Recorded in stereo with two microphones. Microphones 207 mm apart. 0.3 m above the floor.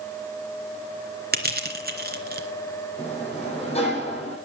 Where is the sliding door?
30° left (ahead or behind), 7.5 m.